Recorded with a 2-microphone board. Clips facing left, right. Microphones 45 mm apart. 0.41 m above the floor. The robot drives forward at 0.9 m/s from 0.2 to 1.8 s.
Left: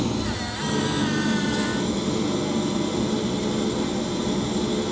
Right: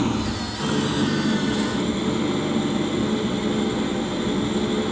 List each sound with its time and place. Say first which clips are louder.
0.0 s an engine running: right 2 dB; 35° right (ahead or behind), 3.5 m; by 4.9 s 25° right (ahead or behind), 4.5 m